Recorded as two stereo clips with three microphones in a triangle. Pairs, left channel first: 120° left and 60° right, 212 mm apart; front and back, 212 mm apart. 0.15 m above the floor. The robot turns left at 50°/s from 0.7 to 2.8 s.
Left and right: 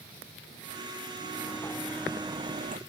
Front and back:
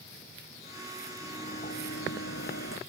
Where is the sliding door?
65° left; by 2.8 s 10° right.